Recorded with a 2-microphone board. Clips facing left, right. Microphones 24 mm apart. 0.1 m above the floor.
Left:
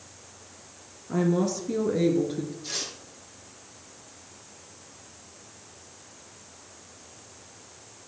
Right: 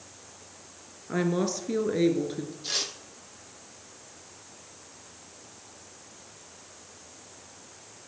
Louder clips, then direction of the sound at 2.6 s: Right 3 dB; 25° right (ahead or behind).